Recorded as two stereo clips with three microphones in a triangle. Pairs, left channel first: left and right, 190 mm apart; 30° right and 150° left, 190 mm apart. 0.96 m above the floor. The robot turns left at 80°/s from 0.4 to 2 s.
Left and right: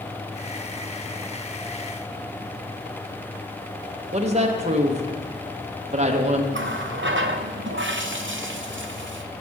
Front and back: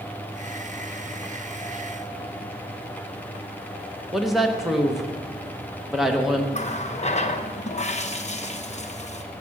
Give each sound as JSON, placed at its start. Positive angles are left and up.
{"t": 4.1, "sound": "a woman speaking", "azimuth_deg": -120, "distance_m": 0.9}
{"t": 6.5, "sound": "a running tap", "azimuth_deg": -85, "distance_m": 0.7}